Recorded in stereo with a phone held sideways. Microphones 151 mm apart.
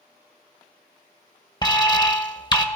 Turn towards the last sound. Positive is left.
turn(degrees=25)  # may be behind; listen again after turning